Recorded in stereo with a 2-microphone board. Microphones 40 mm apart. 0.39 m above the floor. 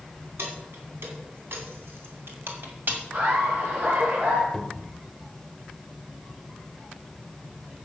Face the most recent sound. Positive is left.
turn(degrees=10)  # may be behind; listen again after turning